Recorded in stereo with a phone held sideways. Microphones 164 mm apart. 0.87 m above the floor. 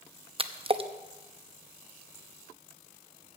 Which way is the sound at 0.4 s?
35° right (ahead or behind).